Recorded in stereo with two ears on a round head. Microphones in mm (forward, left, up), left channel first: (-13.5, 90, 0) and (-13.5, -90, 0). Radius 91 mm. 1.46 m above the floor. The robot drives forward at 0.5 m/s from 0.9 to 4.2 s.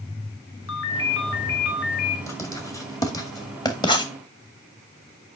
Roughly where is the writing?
Centre.